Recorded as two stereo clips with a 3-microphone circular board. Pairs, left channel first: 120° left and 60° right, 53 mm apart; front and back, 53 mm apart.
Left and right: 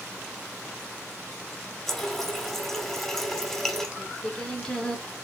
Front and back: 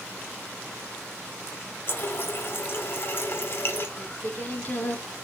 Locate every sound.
1.9 s a running tap: 40° left, 1.2 m
4.0 s singing: 50° left, 1.3 m